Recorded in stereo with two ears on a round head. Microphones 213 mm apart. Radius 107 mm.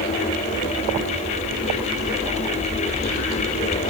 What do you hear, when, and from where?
Only background noise.